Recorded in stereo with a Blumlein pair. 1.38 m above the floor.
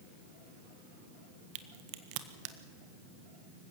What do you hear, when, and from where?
1.6 s a crack: 45° right, 1.4 m